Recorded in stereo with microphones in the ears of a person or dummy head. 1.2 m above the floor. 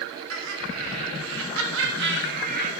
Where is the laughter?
80° right, 3.5 m; by 2.7 s 35° right (ahead or behind), 1.6 m.